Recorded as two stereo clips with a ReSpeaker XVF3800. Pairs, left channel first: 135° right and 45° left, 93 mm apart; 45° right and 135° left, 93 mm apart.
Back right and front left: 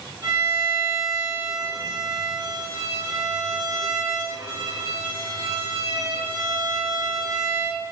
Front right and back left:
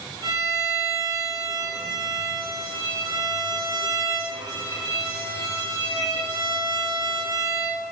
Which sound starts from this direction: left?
A violin, at 0.2 s.